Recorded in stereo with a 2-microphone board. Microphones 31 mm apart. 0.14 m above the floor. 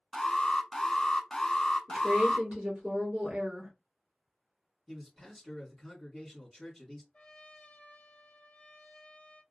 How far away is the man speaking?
About 1.4 m.